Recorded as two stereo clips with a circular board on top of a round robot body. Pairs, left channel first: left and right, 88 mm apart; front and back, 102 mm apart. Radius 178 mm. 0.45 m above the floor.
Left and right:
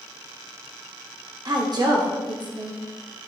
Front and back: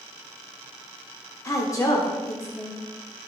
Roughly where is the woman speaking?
Ahead right.